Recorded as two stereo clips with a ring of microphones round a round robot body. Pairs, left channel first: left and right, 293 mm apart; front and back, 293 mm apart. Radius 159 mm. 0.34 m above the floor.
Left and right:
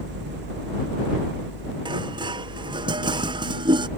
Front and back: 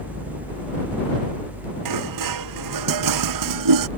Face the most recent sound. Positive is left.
turn(degrees=-165)